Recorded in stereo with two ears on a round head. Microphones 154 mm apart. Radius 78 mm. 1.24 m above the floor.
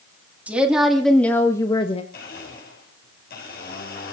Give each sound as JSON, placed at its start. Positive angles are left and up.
{"t": 0.5, "sound": "a woman speaking", "side_deg": -10, "distance_m": 2.5}
{"t": 2.1, "sound": "a blender", "side_deg": 60, "distance_m": 7.5}